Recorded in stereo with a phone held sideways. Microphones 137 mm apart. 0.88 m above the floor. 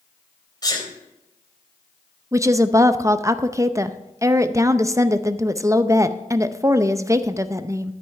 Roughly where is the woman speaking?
Right.